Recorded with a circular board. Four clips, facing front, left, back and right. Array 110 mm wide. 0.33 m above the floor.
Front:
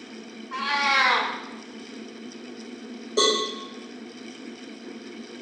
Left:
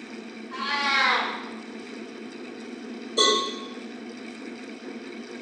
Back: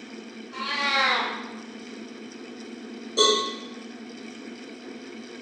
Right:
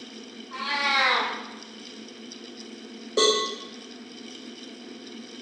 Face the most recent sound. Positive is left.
turn(degrees=-65)